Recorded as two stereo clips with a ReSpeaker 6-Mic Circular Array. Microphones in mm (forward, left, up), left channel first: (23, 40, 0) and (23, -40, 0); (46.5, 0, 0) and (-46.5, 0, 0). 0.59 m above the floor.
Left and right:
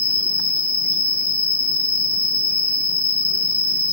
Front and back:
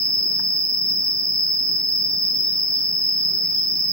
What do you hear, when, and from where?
0.0 s an insect: 30° left, 1.2 m